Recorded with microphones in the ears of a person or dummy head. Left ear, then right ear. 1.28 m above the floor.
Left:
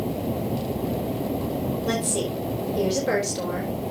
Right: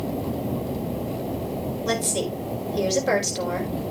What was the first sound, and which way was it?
A woman speaking, 30° right (ahead or behind).